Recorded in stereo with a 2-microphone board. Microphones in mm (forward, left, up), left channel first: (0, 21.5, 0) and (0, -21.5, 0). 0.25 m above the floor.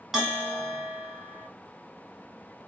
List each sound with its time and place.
0.1 s a bell: 5° right (ahead or behind), 1.7 m